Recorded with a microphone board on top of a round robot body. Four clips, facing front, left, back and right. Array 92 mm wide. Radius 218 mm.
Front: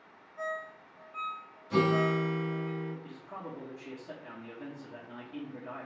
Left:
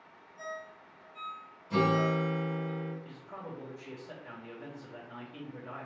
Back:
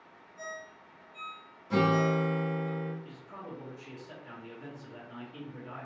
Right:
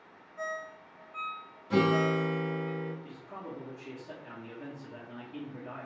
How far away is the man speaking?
About 1.7 m.